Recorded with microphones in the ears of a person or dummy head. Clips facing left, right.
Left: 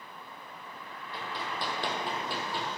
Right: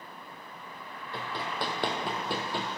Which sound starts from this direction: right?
Running footsteps, at 1.1 s.